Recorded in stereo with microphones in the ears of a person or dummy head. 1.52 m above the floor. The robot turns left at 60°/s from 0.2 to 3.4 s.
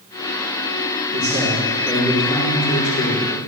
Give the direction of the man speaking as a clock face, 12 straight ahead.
5 o'clock.